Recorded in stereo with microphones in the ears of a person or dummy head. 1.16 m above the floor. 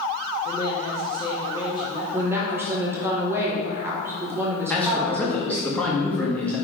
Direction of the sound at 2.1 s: 10° right (ahead or behind).